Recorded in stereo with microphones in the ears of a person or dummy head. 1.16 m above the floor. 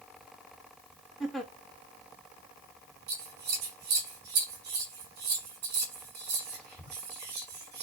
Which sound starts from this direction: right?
Scissors, at 3.1 s.